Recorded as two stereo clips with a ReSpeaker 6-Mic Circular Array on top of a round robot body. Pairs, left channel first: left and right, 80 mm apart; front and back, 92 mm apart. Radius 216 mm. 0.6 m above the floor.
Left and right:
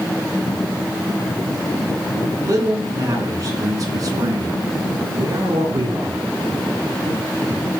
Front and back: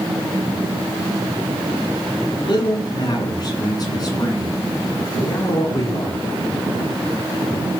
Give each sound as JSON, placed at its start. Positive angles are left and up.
{"t": 2.3, "sound": "a man speaking", "azimuth_deg": -40, "distance_m": 10.0}